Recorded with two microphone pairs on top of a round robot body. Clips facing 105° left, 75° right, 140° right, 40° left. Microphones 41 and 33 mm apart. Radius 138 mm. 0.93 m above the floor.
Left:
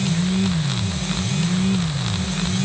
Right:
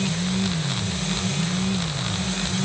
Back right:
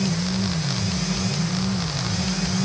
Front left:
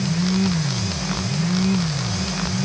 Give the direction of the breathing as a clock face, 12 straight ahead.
I don't hear breathing.